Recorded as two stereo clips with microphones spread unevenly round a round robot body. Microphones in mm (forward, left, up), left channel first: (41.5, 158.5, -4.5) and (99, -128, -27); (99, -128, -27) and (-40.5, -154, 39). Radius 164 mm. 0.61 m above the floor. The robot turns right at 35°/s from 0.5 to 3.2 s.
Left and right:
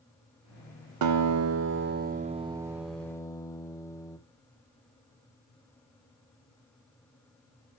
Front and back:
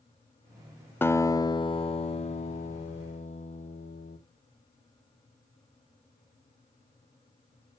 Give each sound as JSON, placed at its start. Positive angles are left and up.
{"t": 1.0, "sound": "a guitar", "azimuth_deg": -55, "distance_m": 0.7}